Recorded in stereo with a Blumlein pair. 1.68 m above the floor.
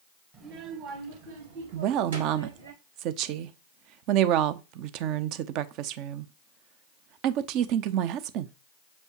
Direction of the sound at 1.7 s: 40° right.